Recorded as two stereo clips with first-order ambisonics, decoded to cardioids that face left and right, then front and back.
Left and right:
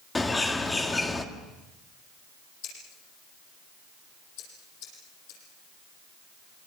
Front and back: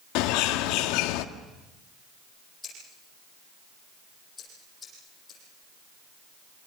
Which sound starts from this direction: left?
Scissors, at 2.6 s.